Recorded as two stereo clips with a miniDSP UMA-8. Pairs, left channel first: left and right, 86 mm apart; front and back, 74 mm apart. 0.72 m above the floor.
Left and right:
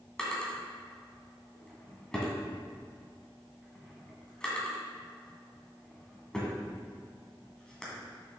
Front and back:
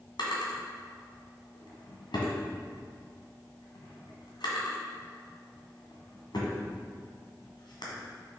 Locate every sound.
0.2 s a drawer: 5° left, 1.9 m